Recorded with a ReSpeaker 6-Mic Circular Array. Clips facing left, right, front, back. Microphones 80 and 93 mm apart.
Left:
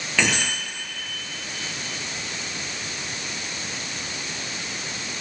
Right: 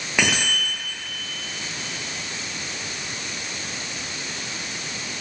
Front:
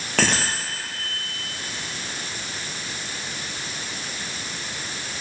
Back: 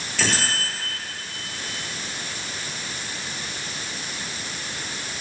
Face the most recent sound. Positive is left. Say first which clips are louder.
# right 1 dB, front 2 dB
turn(degrees=-15)